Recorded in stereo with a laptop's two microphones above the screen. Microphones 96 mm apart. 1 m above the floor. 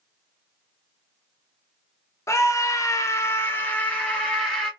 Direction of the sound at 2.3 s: 30° left (ahead or behind).